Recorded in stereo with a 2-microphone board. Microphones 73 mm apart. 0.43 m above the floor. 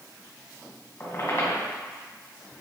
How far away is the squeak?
About 1.7 m.